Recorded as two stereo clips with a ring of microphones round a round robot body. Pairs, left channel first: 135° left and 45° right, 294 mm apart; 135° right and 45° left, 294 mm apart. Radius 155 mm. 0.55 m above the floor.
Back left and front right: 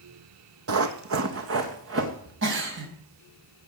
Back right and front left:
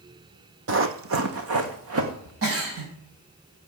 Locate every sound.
0.7 s running footsteps: 5° right, 1.3 m; by 2.3 s 5° left, 3.5 m
2.4 s a giggle: 5° left, 4.5 m